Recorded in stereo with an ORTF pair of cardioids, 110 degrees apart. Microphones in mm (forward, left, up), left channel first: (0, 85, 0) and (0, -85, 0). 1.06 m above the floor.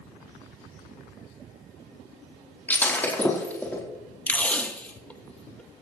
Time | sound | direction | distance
2.7 | breaking glass | 10° left | 4 m
4.3 | tape being pulled | 10° left | 1.3 m